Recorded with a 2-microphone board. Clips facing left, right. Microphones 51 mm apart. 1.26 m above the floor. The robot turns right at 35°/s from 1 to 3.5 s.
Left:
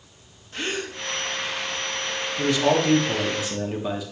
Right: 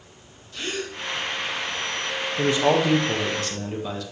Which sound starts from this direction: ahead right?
A man speaking, at 2.4 s.